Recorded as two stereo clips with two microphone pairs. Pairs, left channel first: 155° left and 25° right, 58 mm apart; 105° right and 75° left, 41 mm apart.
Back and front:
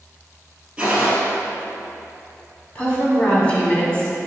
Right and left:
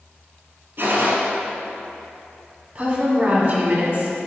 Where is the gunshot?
50° left, 1.5 m.